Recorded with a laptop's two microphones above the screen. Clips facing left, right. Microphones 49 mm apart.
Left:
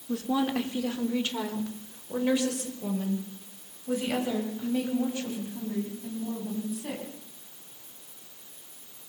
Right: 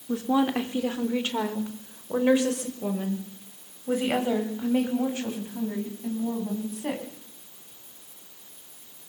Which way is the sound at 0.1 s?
15° right (ahead or behind).